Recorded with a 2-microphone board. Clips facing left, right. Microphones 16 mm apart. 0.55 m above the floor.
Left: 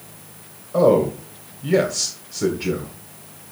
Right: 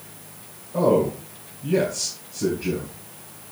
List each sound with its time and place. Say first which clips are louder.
0.7 s a man speaking: left 4 dB; 60° left (ahead or behind), 1.7 m